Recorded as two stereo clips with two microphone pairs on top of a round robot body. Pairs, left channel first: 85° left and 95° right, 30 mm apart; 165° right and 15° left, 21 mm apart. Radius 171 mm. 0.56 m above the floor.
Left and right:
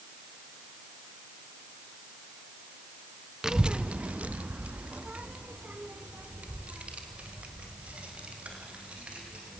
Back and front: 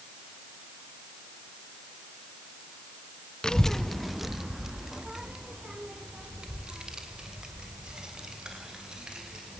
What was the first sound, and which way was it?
A child speaking, 150° right.